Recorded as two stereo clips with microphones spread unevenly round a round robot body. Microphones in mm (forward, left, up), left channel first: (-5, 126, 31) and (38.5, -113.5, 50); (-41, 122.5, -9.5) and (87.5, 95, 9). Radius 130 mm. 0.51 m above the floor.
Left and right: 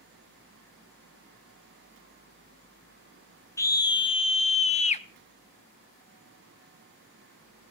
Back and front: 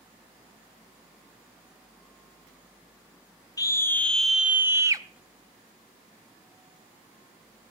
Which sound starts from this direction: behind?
A scream, at 3.6 s.